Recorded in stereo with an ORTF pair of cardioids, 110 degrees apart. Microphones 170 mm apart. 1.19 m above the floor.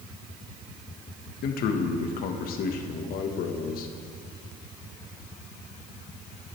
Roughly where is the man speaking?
Left.